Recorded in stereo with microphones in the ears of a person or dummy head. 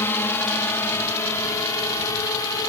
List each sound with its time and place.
0.0 s a drone: 15° left (ahead or behind); by 2.7 s 20° left (ahead or behind)